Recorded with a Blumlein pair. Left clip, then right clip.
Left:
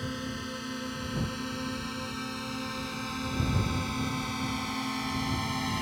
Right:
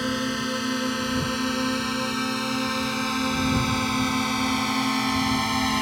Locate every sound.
0.0 s a drone: 65° right